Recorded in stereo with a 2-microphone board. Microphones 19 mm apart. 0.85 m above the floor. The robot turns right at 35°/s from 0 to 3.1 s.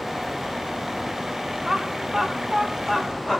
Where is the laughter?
15° right (ahead or behind), 3.5 m; by 3.4 s 35° left (ahead or behind), 3.5 m.